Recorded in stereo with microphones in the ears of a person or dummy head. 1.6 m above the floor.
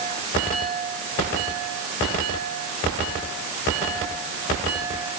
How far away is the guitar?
I don't hear a guitar.